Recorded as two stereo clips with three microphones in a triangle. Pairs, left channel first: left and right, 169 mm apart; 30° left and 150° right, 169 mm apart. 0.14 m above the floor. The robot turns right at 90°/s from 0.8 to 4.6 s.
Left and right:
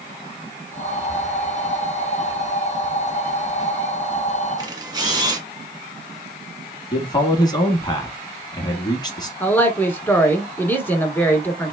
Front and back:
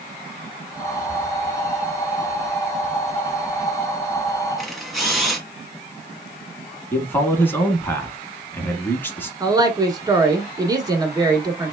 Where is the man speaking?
90° left, 1.1 m.